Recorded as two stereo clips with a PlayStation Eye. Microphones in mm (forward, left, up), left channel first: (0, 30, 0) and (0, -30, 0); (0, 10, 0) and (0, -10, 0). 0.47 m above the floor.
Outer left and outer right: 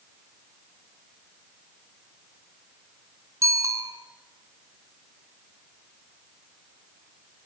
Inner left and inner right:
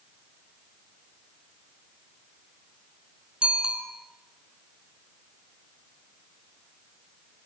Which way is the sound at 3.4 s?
55° right (ahead or behind).